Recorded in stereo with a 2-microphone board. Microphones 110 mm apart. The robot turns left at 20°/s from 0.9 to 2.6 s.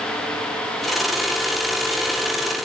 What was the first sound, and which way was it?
Only background noise.